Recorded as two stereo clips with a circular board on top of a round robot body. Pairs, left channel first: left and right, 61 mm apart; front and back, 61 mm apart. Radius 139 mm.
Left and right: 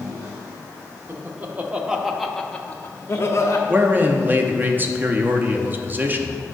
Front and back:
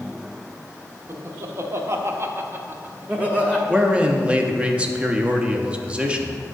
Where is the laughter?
140° right, 1.4 m; by 3.6 s 110° left, 1.2 m.